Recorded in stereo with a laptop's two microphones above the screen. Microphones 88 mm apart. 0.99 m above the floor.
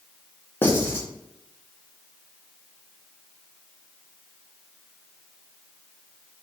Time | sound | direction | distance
0.6 | writing | 25° left (ahead or behind) | 0.7 m